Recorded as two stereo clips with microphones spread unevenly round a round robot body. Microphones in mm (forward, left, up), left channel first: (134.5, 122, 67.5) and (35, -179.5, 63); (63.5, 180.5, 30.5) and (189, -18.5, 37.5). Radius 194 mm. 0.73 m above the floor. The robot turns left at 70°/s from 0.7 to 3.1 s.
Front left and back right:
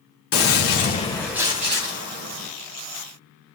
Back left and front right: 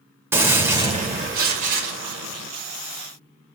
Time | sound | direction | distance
0.3 | a gunshot | 25° left | 2.5 m